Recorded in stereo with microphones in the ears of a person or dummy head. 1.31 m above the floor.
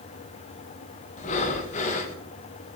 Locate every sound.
1.2 s breathing: 40° left (ahead or behind), 1.0 m